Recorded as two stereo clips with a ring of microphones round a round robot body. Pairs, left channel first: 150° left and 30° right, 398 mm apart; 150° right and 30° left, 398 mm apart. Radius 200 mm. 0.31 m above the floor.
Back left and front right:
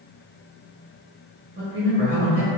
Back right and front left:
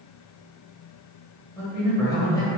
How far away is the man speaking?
About 1.2 m.